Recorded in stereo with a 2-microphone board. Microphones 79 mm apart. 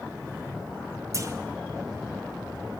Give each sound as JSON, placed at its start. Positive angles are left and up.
{"t": 1.1, "sound": "a clunk", "side_deg": -40, "distance_m": 2.0}